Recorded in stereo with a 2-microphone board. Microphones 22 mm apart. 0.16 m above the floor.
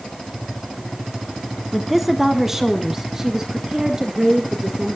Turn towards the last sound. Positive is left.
turn(degrees=-25)  # may be behind; listen again after turning